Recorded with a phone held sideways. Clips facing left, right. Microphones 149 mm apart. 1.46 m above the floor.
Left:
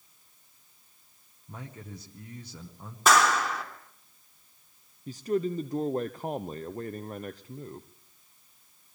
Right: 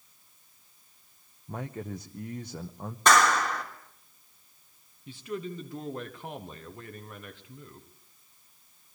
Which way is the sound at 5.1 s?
40° left (ahead or behind).